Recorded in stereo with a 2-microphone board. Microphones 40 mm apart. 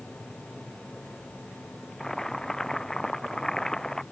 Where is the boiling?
15° left (ahead or behind).